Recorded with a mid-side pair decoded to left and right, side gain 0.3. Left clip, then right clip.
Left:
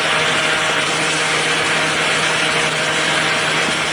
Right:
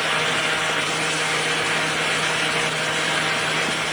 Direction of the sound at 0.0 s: 50° left.